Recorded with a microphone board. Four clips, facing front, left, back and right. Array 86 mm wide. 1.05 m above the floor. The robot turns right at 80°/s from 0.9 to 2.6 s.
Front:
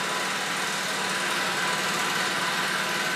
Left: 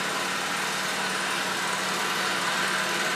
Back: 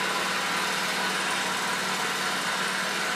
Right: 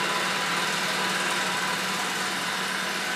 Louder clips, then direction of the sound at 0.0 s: Right 2 dB, back 1 dB; 85° right.